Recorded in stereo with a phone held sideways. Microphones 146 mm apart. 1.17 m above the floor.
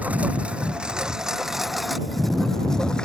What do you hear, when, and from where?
0.0 s a lawn mower: 10° right (ahead or behind); by 3.0 s 5° left (ahead or behind)